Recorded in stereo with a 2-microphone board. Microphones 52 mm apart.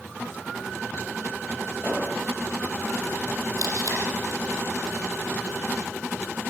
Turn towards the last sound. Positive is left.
turn(degrees=-85)